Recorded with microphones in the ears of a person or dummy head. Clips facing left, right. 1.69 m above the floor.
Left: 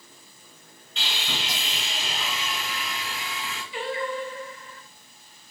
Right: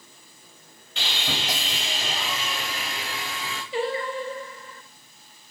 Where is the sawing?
50° right (ahead or behind), 0.9 m.